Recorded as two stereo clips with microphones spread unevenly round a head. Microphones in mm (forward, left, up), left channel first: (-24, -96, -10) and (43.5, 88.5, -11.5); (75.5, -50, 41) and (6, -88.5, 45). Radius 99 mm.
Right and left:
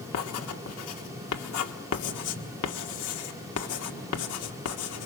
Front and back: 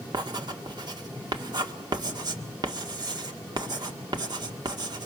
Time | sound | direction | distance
0.1 | writing | 120° right | 1.8 m